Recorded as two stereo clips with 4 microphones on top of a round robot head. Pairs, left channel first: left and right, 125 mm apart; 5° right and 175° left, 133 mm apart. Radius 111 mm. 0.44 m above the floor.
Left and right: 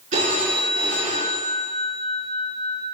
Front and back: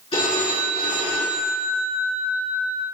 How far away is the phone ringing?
About 5 m.